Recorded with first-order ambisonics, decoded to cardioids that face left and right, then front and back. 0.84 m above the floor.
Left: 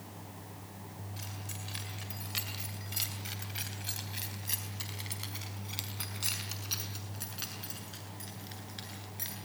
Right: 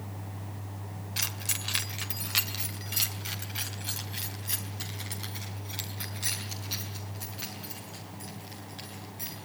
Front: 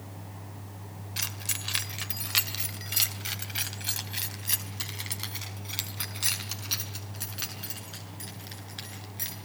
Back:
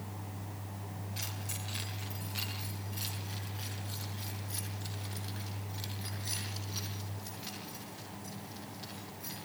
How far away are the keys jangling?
About 2.0 m.